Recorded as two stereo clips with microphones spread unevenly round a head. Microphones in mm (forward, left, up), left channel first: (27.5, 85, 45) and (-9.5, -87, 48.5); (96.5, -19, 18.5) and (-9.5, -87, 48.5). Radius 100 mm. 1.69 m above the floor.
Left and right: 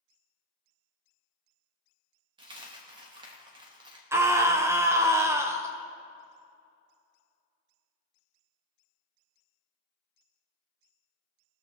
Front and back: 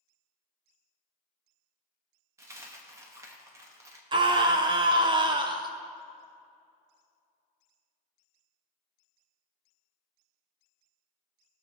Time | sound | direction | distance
2.4 | a dropped coin | 145° right | 1.1 m
4.1 | a scream | 175° right | 0.7 m